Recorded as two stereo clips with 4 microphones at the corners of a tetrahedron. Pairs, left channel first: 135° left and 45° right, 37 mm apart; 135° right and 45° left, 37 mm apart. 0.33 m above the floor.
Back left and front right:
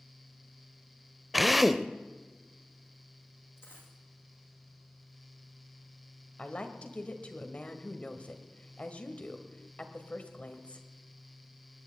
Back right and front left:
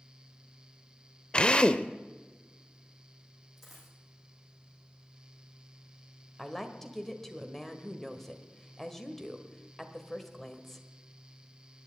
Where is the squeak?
No squeak in this recording.